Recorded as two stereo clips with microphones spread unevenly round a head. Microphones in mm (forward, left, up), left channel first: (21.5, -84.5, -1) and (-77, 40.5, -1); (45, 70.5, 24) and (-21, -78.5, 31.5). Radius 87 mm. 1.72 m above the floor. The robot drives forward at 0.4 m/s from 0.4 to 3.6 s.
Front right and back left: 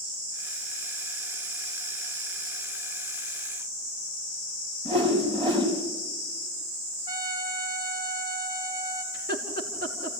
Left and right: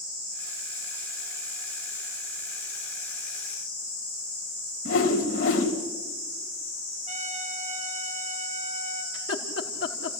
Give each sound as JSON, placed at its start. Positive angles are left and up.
{"t": 4.8, "sound": "a whoosh", "azimuth_deg": 65, "distance_m": 3.5}
{"t": 7.1, "sound": "a trumpet", "azimuth_deg": -170, "distance_m": 3.5}
{"t": 9.1, "sound": "laughter", "azimuth_deg": 90, "distance_m": 3.0}